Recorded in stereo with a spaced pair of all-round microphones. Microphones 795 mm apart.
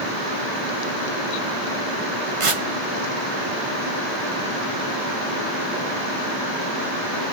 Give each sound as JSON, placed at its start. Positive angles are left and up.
{"t": 2.4, "sound": "tearing paper", "side_deg": -45, "distance_m": 0.8}